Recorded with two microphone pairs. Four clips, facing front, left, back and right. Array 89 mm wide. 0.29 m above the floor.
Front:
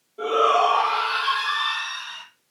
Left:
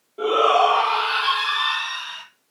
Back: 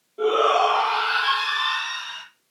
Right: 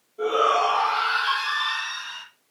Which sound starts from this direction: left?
A shout, at 0.2 s.